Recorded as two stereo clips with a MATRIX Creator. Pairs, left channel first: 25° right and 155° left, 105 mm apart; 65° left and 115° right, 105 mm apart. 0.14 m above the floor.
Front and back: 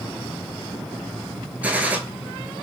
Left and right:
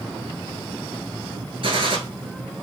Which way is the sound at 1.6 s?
130° right.